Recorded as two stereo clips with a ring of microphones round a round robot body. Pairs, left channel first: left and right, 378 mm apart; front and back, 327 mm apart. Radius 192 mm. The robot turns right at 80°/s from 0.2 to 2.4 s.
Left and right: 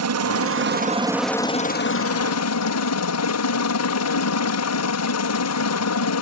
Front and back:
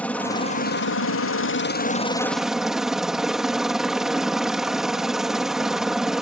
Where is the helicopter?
85° right; by 6.2 s 90° left.